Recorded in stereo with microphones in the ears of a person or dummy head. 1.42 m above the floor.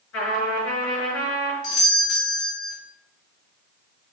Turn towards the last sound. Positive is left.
turn(degrees=75)  # may be behind; listen again after turning